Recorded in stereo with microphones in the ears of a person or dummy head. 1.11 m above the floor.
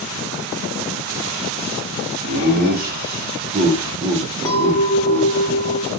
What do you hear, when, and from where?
2.3 s laughter: 50° right (ahead or behind), 1.2 m; by 5.3 s 10° left (ahead or behind), 1.1 m
4.5 s a clink: 20° left (ahead or behind), 0.7 m